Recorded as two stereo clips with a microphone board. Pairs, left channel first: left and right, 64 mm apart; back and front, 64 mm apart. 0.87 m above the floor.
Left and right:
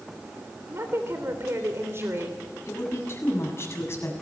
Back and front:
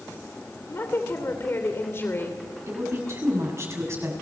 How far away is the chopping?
I don't hear chopping.